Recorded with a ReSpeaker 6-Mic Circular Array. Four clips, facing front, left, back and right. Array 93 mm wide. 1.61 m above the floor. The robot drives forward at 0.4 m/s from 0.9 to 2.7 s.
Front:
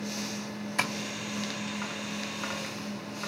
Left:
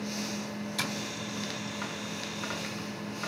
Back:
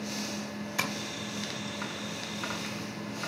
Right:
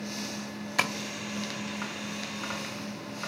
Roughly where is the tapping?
Right.